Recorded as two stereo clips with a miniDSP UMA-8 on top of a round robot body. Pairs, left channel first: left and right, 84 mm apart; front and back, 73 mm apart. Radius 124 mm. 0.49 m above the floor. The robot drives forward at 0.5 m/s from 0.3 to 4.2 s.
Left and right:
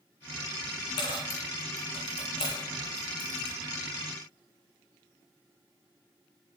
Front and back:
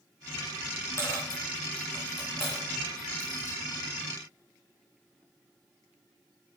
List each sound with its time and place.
1.0 s a dropped coin: 55° left, 2.5 m; by 3.6 s 90° left, 1.9 m